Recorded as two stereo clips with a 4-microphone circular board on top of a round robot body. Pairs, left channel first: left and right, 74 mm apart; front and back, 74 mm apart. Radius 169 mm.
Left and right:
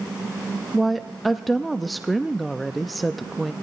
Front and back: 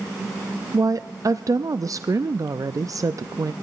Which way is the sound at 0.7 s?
Straight behind.